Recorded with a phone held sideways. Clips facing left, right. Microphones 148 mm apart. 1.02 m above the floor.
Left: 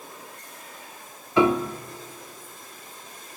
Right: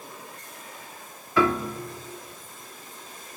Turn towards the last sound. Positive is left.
turn(degrees=20)  # may be behind; listen again after turning